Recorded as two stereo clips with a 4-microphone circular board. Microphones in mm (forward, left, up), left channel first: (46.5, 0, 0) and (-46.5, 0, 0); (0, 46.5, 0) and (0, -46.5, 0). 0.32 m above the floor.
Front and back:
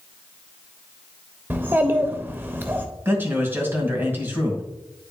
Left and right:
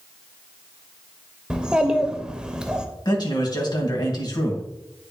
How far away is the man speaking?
About 2.0 m.